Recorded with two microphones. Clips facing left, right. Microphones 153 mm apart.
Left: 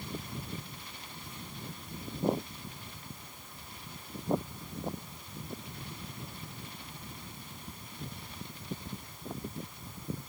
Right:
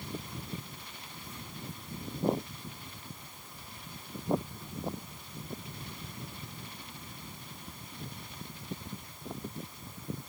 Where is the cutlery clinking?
No cutlery clinking in this recording.